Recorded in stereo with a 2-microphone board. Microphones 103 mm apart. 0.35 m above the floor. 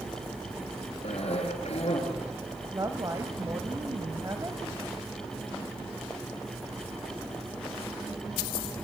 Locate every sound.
1.0 s a cough: 75° left (ahead or behind), 6 m
2.7 s a woman speaking: 35° right (ahead or behind), 1.9 m